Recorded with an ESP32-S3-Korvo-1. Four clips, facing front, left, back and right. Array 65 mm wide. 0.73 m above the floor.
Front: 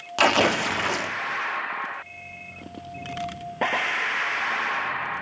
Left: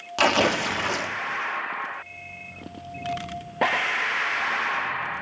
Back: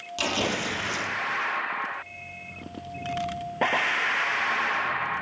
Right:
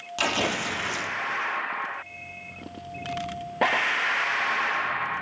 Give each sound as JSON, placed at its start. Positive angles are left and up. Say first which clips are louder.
{"t": 0.2, "sound": "tearing paper", "louder": "left 6 dB, front 8 dB", "azimuth_deg": 25, "distance_m": 0.7}